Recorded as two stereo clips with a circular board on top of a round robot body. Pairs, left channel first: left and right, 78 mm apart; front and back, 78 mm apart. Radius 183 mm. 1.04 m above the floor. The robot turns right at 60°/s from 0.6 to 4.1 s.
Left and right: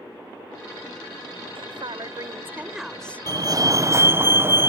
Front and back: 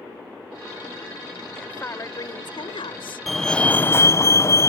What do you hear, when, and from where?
1.6 s a woman speaking: 80° right; by 4.3 s 75° left
3.3 s a fire alarm: 90° right; by 4.7 s 40° right